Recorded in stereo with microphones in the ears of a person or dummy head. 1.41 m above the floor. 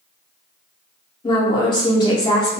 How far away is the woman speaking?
About 0.6 m.